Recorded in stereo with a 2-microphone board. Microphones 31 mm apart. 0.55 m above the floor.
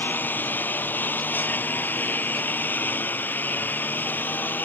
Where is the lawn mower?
90° left; by 4.7 s 85° left.